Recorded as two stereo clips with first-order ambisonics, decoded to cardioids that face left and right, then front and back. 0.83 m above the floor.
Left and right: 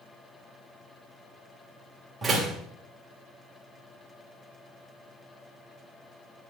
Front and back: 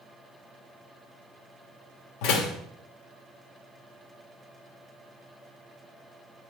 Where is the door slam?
10° right, 1.6 m.